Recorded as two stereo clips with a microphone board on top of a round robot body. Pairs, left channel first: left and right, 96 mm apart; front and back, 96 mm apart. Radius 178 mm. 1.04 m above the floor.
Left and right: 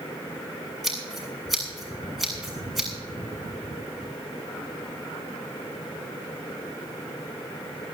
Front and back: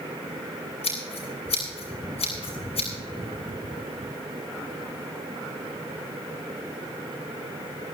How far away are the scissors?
About 7.5 m.